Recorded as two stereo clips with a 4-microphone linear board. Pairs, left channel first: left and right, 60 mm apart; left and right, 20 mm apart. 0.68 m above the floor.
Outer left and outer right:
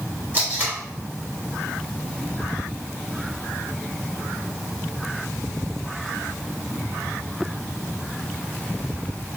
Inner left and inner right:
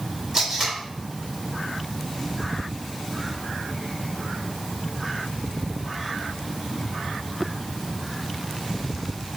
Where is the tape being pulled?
30° right (ahead or behind), 2.5 m.